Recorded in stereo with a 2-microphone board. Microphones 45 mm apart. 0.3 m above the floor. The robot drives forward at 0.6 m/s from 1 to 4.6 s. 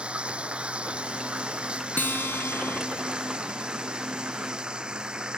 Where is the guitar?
55° left (ahead or behind); by 2.8 s 80° left.